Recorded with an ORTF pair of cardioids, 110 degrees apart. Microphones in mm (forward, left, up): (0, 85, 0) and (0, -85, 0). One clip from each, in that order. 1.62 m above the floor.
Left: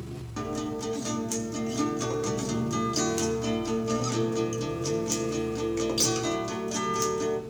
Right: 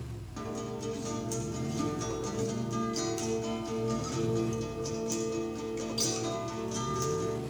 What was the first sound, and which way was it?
A guitar, 40° left.